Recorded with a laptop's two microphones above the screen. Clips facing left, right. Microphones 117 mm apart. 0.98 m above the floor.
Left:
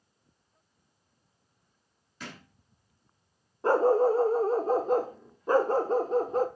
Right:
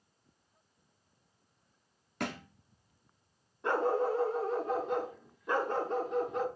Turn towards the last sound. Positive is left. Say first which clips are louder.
# left 8 dB
turn(degrees=40)  # may be behind; listen again after turning